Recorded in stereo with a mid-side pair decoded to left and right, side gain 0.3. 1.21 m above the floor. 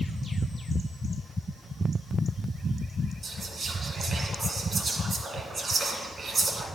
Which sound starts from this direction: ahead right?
Whispering, at 3.2 s.